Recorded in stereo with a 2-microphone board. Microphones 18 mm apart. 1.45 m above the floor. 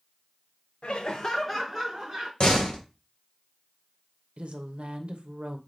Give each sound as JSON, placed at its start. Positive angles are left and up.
{"t": 0.8, "sound": "laughter", "side_deg": 65, "distance_m": 0.6}
{"t": 2.4, "sound": "a door slam", "side_deg": 50, "distance_m": 0.9}
{"t": 4.4, "sound": "a woman speaking", "side_deg": -80, "distance_m": 0.7}